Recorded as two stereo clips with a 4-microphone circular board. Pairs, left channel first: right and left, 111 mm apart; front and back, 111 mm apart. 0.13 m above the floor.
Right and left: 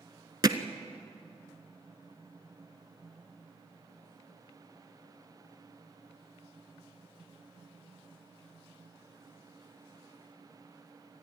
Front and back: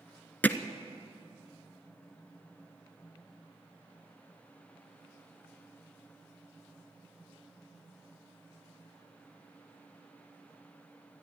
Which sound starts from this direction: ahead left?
Hammering, at 0.4 s.